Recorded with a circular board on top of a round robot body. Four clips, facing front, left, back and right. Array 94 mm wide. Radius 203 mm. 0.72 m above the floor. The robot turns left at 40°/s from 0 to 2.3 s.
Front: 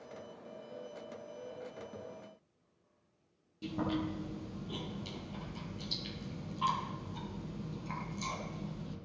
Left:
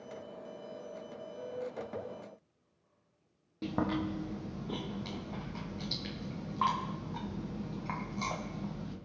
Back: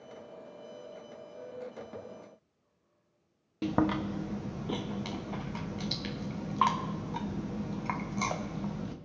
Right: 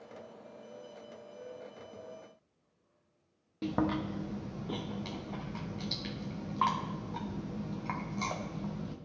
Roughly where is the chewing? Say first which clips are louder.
Right 1 dB, back 6 dB; behind.